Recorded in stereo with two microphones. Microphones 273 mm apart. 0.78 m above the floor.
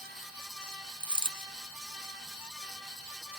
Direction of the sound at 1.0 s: 20° right (ahead or behind).